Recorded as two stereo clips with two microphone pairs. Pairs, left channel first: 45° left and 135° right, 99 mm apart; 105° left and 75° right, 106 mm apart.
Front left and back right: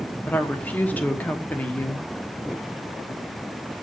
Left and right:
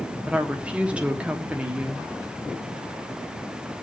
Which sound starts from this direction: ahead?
A woman speaking, at 0.3 s.